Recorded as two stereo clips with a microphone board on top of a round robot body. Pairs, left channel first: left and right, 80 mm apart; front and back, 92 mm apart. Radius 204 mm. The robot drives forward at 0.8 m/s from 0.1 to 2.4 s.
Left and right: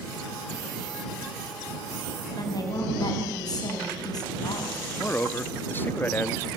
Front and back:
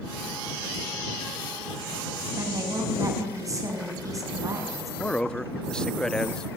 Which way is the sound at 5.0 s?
70° left.